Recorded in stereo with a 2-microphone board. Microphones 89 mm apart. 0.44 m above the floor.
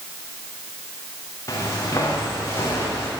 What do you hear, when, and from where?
1.5 s footsteps: 35° left (ahead or behind), 4 m; by 3.1 s 30° left (ahead or behind), 5 m